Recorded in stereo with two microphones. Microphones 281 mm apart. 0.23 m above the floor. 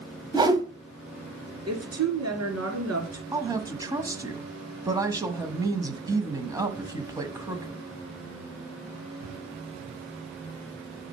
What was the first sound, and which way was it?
A whoosh, 15° right (ahead or behind).